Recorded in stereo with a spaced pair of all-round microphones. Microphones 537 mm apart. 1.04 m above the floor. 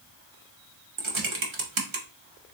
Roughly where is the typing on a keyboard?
Right.